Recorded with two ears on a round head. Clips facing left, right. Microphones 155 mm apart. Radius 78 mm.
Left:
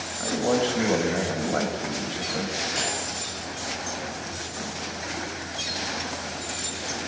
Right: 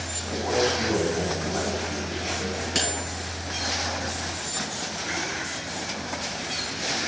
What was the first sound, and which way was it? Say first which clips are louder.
A man speaking: left 2 dB; 65° left (ahead or behind).